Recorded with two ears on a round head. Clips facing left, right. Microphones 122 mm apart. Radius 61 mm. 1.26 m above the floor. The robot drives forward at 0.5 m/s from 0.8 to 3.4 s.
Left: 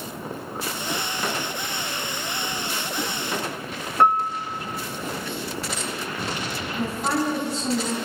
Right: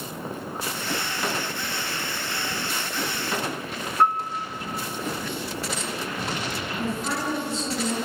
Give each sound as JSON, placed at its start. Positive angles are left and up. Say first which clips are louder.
{"t": 4.0, "sound": "a piano", "louder": "left 3 dB", "side_deg": 60, "distance_m": 1.4}
{"t": 6.8, "sound": "a woman speaking", "louder": "left 5 dB", "side_deg": 35, "distance_m": 9.5}